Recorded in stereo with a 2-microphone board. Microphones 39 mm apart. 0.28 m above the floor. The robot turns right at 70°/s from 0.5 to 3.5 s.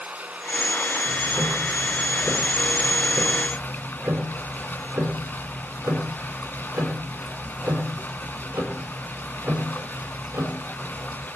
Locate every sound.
0.0 s running water: 135° right, 2.5 m; by 11.4 s 75° left, 2.5 m
1.1 s ticking: 90° left, 9 m; by 11.3 s 100° right, 9 m